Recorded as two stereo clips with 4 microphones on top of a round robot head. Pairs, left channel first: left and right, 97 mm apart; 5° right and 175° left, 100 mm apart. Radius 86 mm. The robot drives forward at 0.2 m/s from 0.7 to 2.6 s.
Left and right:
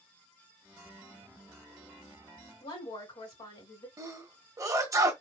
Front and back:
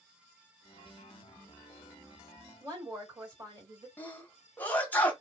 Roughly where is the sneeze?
Ahead right.